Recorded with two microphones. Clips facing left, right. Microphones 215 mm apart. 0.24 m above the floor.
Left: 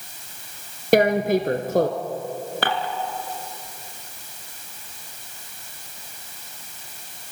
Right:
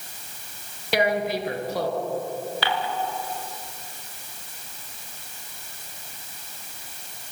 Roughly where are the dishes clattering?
Left.